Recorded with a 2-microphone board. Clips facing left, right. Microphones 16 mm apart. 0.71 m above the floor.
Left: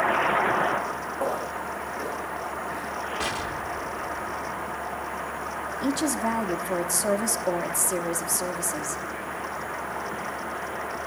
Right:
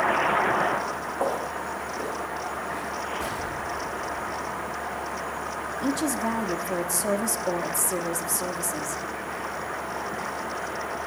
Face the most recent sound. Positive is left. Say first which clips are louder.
# left 1 dB
turn(degrees=10)  # may be behind; listen again after turning